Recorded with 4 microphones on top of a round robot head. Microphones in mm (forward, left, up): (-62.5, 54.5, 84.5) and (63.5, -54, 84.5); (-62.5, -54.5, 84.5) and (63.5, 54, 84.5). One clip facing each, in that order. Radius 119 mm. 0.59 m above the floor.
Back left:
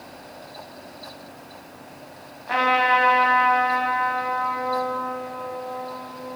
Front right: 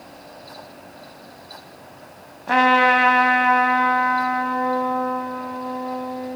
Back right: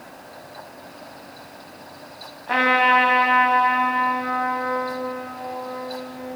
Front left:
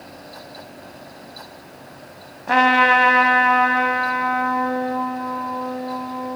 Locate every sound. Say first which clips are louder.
2.5 s a trumpet: front right 5 dB, front left 3 dB; straight ahead, 2.5 m